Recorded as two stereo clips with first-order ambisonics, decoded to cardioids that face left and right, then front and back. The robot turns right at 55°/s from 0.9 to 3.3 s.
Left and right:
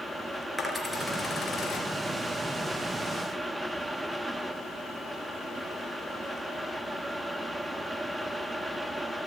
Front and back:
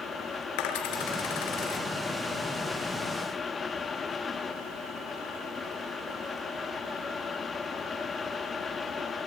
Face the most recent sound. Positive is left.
turn(degrees=130)